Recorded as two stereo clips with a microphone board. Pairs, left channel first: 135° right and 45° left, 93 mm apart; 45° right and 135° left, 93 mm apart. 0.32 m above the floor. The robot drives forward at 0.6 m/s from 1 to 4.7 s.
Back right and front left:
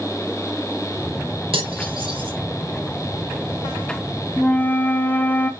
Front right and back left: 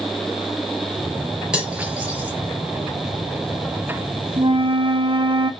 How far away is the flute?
About 0.6 m.